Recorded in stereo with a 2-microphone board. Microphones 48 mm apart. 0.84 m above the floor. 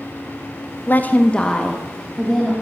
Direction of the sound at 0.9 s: 45° left (ahead or behind).